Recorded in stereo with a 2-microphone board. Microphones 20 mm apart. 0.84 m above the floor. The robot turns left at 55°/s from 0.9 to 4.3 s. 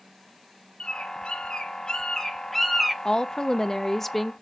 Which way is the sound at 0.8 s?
75° left (ahead or behind).